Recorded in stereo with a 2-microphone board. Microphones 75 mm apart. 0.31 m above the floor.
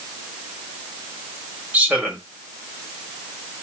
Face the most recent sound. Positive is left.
turn(degrees=-20)  # may be behind; listen again after turning